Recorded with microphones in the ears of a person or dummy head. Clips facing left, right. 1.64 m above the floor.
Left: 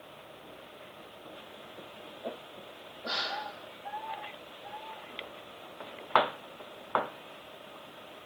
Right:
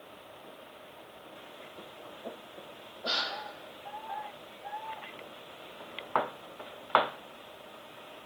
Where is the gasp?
45° right (ahead or behind), 0.7 m.